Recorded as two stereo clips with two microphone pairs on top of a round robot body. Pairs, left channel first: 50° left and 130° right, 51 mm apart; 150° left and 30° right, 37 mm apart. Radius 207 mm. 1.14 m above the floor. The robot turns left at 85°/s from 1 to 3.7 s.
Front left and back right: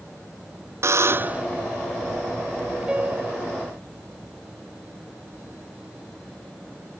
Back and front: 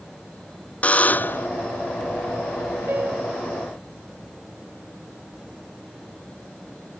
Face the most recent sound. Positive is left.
turn(degrees=-125)